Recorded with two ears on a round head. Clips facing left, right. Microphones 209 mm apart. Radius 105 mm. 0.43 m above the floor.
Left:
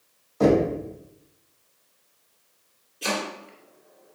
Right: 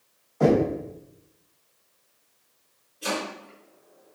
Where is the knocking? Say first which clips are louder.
Left 1 dB; 35° left (ahead or behind), 1.6 m.